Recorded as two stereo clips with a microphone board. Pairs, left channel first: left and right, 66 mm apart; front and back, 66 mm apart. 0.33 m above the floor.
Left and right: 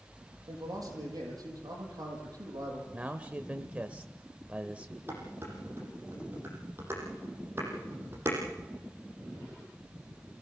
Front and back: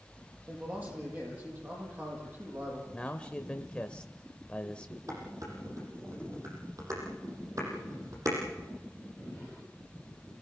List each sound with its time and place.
0.5 s a man speaking: 120° right, 8 m
2.9 s a man speaking: 50° right, 1.0 m
5.1 s dishes clattering: 145° right, 7 m